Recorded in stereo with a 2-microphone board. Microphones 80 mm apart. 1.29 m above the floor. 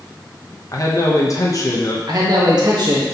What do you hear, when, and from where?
0.7 s a man speaking: 45° left (ahead or behind), 0.9 m
2.1 s a man speaking: 55° right (ahead or behind), 1.2 m